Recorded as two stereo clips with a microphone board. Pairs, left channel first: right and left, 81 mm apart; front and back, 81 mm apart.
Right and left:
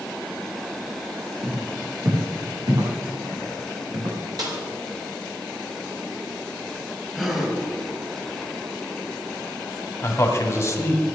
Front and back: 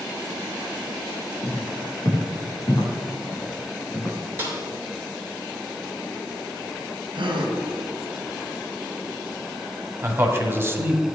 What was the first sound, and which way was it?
Footsteps, 35° left.